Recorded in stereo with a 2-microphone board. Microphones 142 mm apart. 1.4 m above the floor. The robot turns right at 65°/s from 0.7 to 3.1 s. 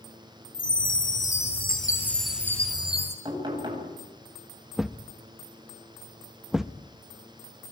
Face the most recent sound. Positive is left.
turn(degrees=-5)  # may be behind; listen again after turning